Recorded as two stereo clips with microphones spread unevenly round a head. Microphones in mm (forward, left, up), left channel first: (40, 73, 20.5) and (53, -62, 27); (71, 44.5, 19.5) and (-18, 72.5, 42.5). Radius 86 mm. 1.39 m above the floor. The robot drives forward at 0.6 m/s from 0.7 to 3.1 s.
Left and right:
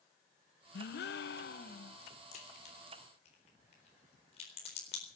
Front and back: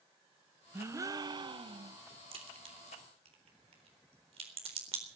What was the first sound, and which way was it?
A gasp, 95° left.